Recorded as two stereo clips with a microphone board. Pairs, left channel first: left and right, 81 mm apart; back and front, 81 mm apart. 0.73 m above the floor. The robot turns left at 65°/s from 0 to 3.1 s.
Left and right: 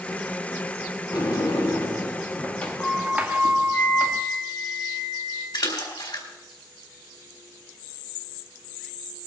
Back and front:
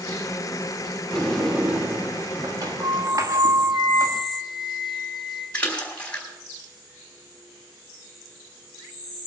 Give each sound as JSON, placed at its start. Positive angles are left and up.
{"t": 1.1, "sound": "a sliding door", "azimuth_deg": 110, "distance_m": 1.2}
{"t": 3.7, "sound": "a flute", "azimuth_deg": 40, "distance_m": 5.5}
{"t": 5.5, "sound": "a splash", "azimuth_deg": 105, "distance_m": 3.5}